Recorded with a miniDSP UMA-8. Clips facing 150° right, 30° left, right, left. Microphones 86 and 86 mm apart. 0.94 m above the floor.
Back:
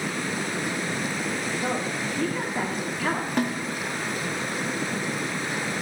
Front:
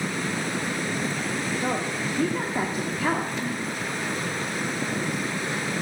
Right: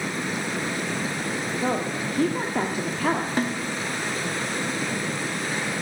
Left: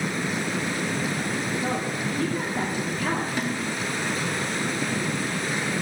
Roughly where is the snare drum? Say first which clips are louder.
Back 4 dB, right 2 dB; behind right.